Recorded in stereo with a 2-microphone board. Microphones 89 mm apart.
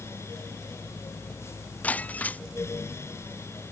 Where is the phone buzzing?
I don't hear a phone buzzing.